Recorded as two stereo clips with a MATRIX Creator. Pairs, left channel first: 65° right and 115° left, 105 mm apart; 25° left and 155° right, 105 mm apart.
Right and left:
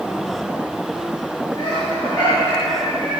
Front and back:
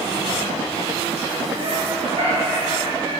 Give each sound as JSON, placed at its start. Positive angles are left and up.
{"t": 1.6, "sound": "laughter", "azimuth_deg": -115, "distance_m": 4.5}